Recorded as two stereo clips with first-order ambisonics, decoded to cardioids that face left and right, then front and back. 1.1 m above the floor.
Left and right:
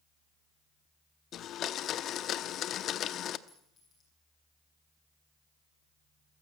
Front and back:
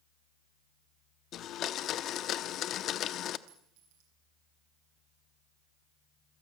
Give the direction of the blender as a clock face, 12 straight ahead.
11 o'clock.